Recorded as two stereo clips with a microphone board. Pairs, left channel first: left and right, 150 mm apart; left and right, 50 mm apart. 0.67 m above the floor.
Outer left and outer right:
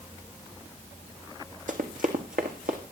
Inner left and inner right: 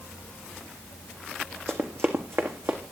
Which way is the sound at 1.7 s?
65° right (ahead or behind).